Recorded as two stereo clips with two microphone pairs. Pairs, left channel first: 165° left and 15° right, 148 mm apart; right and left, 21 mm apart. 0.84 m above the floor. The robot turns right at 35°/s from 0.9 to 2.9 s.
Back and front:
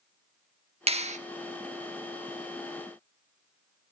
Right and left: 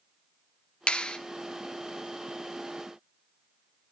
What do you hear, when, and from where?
0.9 s a clap: 60° right, 1.0 m; by 1.2 s 50° right, 1.0 m